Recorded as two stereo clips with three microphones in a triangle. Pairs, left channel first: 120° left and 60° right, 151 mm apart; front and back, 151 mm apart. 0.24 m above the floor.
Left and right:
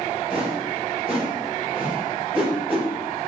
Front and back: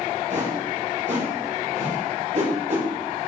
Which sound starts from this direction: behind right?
A whoosh, at 0.3 s.